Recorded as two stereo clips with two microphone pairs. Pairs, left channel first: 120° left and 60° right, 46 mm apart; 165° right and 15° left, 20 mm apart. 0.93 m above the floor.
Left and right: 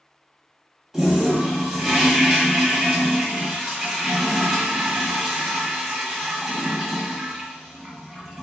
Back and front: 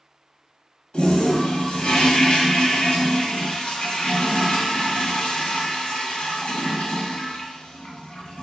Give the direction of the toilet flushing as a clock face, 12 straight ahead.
5 o'clock.